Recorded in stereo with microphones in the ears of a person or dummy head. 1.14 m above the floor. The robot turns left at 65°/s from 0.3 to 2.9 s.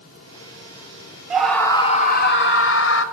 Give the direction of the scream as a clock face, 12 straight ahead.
6 o'clock.